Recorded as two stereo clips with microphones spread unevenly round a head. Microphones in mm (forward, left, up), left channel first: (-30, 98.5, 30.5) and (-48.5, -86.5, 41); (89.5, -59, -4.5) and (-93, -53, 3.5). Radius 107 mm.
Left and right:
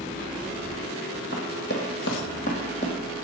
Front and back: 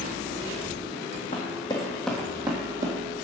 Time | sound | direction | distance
1.3 | running footsteps | 45° left | 1.9 m